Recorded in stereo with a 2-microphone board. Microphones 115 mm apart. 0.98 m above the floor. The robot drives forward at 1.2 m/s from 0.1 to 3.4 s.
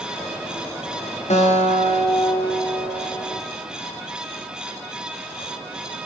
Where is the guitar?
80° left, 1.1 m; by 3.4 s 25° left (ahead or behind), 2.5 m.